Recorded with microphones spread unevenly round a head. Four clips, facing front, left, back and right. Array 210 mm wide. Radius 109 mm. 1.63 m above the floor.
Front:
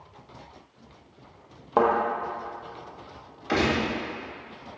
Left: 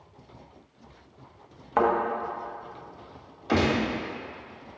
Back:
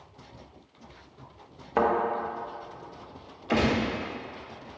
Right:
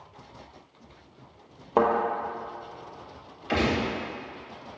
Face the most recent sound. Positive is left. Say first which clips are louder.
# left 2 dB, even
turn(degrees=75)